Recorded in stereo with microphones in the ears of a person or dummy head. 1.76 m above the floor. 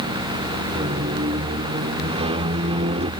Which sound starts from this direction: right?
A squeak, at 0.8 s.